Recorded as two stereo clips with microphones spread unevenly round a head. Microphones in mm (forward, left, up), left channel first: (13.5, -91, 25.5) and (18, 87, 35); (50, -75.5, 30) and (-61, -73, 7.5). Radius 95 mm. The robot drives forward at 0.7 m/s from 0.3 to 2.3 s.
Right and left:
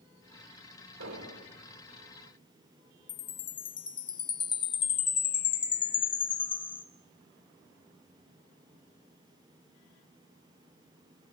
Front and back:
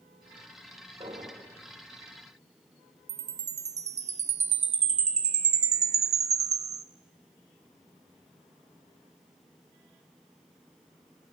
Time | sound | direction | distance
1.0 | an explosion | 100° left | 1.9 m
3.1 | a chime | 160° right | 1.0 m